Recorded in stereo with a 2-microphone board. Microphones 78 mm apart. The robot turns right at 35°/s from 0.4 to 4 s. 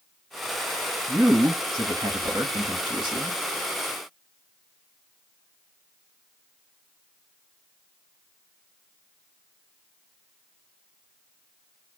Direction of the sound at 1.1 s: 155° right.